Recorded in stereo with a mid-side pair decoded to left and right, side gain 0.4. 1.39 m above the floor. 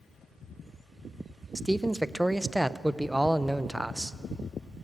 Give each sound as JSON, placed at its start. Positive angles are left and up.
{"t": 1.6, "sound": "a man speaking", "azimuth_deg": -5, "distance_m": 0.8}